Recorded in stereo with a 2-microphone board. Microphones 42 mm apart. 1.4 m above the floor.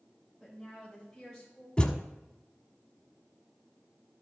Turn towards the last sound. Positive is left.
turn(degrees=20)  # may be behind; listen again after turning